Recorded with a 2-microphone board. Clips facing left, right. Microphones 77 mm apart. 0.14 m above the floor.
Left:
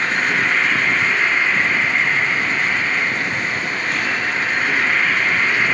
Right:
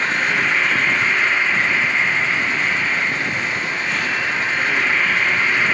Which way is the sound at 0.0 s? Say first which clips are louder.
Left 1 dB; 45° left (ahead or behind).